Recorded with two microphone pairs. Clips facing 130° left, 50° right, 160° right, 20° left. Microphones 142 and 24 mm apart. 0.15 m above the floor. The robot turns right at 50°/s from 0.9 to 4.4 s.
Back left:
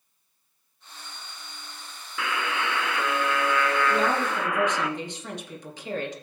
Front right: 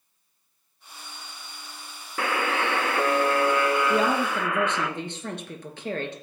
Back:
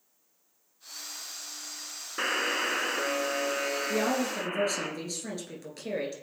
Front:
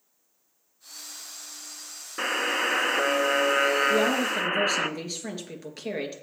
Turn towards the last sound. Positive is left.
turn(degrees=-45)